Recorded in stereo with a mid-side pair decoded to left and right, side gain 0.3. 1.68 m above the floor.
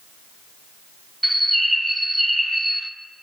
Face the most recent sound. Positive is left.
turn(degrees=-15)